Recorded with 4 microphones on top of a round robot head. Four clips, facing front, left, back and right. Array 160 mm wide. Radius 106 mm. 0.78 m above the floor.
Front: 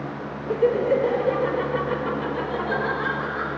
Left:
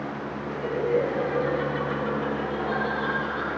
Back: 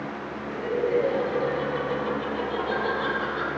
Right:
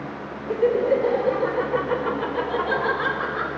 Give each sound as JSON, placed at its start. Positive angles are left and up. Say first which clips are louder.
{"t": 0.5, "sound": "laughter", "louder": "right 6 dB, front 5 dB", "azimuth_deg": -40, "distance_m": 3.5}